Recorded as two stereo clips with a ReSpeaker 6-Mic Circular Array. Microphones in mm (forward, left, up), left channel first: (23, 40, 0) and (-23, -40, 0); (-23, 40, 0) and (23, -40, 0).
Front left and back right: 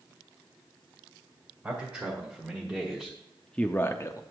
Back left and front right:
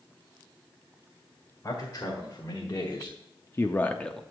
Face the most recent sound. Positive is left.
turn(degrees=40)